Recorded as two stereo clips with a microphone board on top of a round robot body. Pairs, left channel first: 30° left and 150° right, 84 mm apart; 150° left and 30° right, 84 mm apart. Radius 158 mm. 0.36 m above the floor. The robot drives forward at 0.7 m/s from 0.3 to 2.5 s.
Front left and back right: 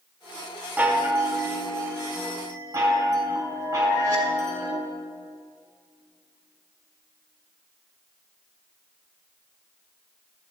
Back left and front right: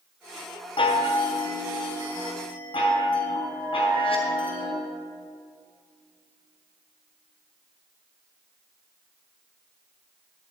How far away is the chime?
About 1.0 m.